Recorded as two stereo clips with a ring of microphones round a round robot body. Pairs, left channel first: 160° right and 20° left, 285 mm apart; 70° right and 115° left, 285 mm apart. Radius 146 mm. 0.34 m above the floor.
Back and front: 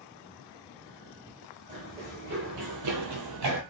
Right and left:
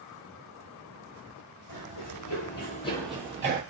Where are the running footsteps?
40° right, 1.1 m; by 3.6 s 55° left, 0.6 m.